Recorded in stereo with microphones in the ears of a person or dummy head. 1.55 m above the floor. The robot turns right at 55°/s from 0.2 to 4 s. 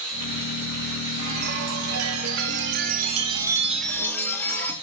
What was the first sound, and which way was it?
A chime, 140° right.